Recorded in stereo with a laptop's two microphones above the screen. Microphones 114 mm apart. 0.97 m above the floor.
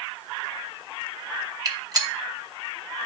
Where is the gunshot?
35° right (ahead or behind), 0.9 m.